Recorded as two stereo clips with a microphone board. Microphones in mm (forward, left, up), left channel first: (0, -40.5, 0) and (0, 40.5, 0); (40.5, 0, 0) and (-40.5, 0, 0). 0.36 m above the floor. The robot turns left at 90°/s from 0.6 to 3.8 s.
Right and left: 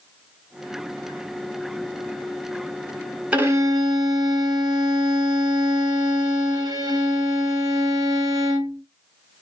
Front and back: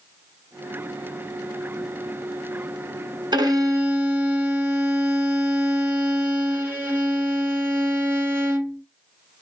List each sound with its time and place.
3.3 s a violin: 165° left, 1.5 m; by 8.8 s 120° left, 1.5 m